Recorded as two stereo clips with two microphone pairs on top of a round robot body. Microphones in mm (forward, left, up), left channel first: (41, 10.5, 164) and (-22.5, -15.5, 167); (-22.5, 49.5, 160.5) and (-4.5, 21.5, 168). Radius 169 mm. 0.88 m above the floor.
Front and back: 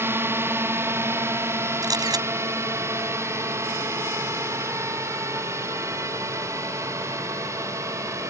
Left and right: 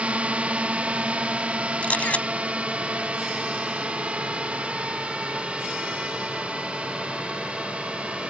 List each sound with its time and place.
0.0 s a drone: 105° right; by 8.3 s 110° right
1.8 s a camera shutter: 170° left